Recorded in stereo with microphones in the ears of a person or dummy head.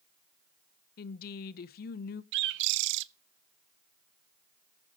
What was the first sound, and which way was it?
A woman speaking, 55° left (ahead or behind).